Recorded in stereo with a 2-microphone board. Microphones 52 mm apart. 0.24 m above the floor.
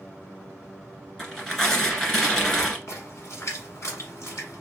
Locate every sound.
1.2 s tearing paper: 15° left (ahead or behind), 1.6 m
2.9 s a splash: 60° left (ahead or behind), 1.3 m